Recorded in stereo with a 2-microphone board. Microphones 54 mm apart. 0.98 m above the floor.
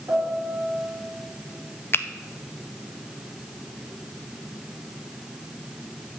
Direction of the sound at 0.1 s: 60° right (ahead or behind).